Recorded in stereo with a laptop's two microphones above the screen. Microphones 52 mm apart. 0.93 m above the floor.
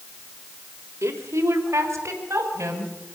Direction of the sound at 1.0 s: 65° right (ahead or behind).